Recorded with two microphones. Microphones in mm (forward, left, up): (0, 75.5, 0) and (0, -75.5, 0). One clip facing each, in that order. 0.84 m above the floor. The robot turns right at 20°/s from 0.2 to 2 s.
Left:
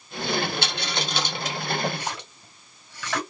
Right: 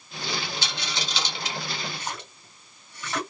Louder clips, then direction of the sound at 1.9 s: Left 3 dB; 75° left (ahead or behind).